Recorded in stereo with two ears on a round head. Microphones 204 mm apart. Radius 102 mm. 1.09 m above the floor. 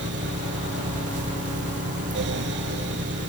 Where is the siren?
No siren in this recording.